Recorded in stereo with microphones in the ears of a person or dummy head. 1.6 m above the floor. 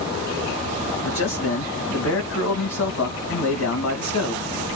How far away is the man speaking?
About 1.4 m.